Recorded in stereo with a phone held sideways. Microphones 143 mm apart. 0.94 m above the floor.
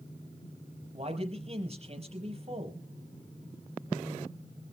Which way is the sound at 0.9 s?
45° right (ahead or behind).